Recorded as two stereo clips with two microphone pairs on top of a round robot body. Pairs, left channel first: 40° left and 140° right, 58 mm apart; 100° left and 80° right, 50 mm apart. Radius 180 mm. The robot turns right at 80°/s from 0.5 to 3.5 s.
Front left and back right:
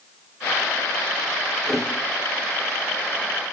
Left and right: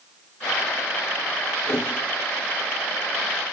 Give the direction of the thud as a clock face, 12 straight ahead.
8 o'clock.